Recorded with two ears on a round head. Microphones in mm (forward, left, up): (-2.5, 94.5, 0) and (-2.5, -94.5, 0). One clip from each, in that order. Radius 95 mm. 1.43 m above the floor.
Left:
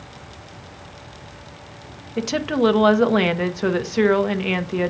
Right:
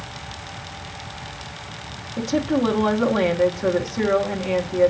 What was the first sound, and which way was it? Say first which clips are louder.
A woman speaking: left 1 dB; 65° left (ahead or behind).